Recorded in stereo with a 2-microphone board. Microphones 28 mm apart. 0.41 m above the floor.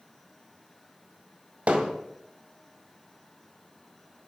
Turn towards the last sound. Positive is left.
turn(degrees=-55)  # may be behind; listen again after turning